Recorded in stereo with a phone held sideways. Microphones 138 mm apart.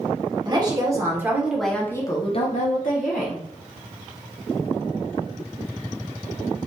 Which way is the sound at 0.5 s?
30° right (ahead or behind).